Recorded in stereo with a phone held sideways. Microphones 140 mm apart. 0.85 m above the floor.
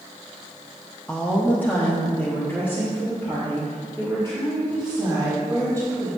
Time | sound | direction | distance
1.1 | a woman speaking | 5° left (ahead or behind) | 0.8 m